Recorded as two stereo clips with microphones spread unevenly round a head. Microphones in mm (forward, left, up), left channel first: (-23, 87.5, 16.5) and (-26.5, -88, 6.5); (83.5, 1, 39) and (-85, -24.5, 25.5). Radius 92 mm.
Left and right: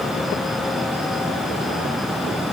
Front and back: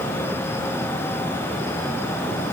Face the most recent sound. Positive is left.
No sound to turn to.